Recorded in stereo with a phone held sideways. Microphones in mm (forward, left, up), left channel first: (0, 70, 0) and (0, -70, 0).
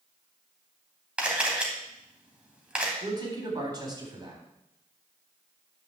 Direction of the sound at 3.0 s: 30° right (ahead or behind).